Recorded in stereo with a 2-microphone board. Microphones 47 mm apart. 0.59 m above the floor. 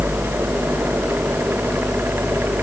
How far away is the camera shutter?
I don't hear a camera shutter.